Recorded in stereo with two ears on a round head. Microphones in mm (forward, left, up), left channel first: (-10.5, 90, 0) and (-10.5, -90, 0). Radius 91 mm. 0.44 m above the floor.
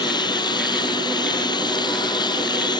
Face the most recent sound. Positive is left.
turn(degrees=20)  # may be behind; listen again after turning